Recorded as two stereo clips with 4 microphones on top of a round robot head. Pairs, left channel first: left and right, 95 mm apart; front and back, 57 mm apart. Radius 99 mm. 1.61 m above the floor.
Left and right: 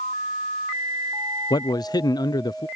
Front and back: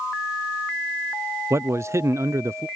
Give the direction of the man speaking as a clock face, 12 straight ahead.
7 o'clock.